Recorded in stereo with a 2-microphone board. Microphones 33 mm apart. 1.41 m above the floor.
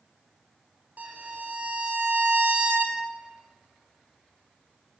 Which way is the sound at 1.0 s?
55° right (ahead or behind).